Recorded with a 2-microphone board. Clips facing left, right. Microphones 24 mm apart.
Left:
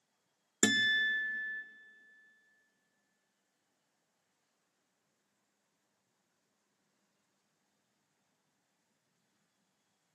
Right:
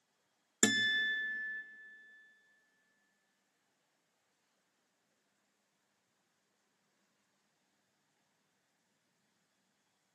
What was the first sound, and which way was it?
A guitar, 10° left (ahead or behind).